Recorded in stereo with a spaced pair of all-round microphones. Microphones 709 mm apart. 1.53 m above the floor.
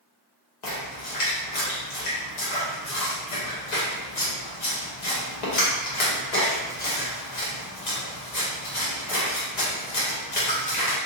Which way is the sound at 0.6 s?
75° left (ahead or behind).